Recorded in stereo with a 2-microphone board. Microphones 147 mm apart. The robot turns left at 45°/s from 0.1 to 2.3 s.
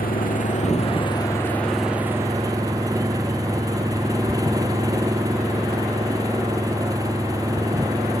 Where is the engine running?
75° left; by 8.2 s 25° right.